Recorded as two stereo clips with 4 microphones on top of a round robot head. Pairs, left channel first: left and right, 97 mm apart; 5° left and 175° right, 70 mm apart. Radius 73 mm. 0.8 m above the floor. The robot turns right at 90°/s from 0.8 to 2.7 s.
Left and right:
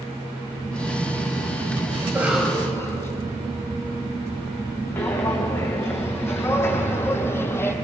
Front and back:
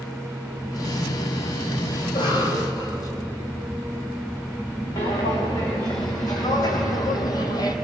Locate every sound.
2.0 s a cough: 35° right, 4.5 m; by 3.1 s 30° left, 4.5 m
5.0 s footsteps: 25° left, 4.5 m